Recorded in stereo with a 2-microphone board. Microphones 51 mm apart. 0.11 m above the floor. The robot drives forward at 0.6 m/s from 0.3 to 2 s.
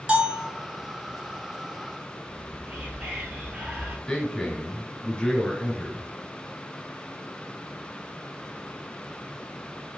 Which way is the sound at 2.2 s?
20° right (ahead or behind).